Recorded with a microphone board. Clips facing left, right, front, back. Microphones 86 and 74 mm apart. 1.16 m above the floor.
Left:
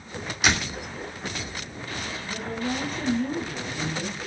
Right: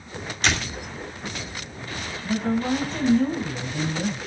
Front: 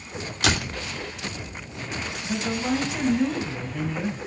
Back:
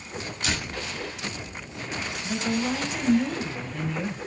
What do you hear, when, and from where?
0.4 s a door slam: 10° left, 3 m
2.2 s a woman speaking: 90° right, 7.5 m